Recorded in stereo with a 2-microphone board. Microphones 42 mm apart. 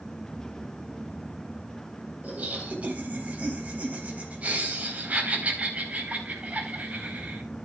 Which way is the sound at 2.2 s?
35° right (ahead or behind).